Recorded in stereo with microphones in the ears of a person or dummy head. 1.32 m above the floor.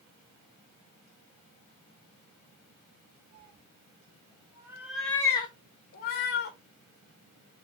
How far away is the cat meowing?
About 1.9 m.